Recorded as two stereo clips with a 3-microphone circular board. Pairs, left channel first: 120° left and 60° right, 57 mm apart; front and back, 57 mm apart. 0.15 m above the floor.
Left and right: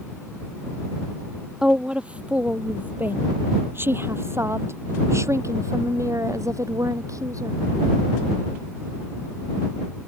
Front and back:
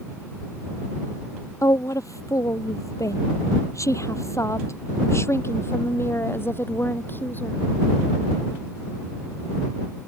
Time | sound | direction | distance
1.6 | a woman speaking | 15° left | ?